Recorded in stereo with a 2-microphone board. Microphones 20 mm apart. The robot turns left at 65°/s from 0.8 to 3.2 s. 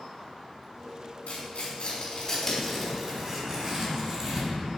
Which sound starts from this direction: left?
Tearing paper, at 1.3 s.